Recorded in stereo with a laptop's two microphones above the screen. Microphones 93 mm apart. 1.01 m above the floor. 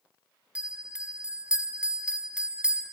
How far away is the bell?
About 0.8 m.